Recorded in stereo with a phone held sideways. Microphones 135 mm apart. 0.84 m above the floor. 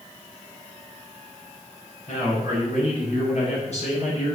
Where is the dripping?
No dripping in this recording.